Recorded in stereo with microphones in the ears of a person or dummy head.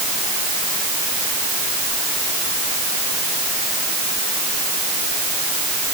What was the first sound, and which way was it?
Only background noise.